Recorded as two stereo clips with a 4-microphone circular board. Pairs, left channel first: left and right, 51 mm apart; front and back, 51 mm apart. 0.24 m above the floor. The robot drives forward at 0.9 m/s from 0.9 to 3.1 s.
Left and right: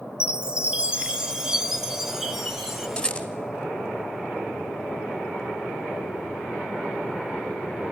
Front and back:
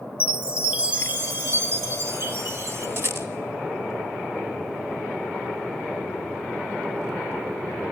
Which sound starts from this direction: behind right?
A chime, at 0.2 s.